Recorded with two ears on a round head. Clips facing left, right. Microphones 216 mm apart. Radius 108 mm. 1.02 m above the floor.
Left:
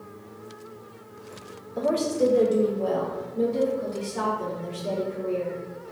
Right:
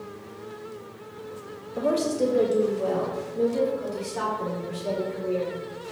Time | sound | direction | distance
1.8 | a woman speaking | 5° right (ahead or behind) | 0.5 m